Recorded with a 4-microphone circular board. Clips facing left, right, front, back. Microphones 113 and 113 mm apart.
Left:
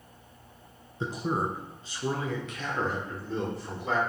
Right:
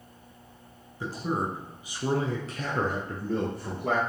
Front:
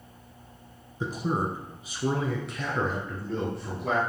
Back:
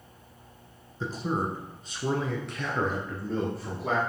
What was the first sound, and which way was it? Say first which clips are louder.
A man speaking: even, front 1 dB; 55° left.